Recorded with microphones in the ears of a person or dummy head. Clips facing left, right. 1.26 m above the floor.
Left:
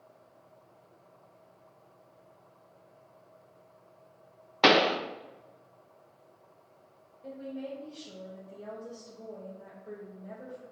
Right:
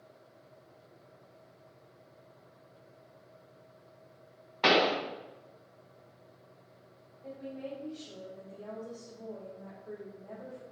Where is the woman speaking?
40° left (ahead or behind), 1.5 m.